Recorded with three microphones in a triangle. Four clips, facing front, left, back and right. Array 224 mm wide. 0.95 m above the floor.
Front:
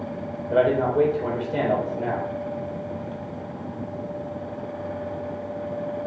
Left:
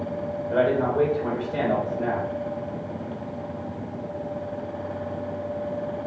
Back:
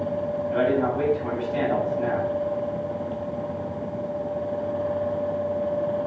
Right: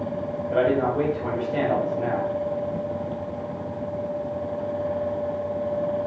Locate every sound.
0.5 s a man speaking: 5° left, 4.5 m